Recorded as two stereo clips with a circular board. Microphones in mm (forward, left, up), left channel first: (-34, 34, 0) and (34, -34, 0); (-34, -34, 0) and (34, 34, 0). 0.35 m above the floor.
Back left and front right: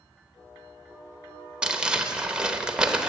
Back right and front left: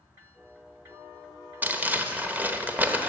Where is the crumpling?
20° left, 0.9 m.